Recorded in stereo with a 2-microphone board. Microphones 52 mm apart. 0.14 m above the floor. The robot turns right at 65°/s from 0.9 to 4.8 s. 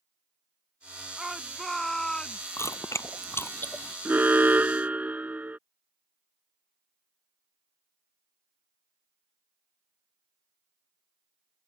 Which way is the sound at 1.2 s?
10° right (ahead or behind).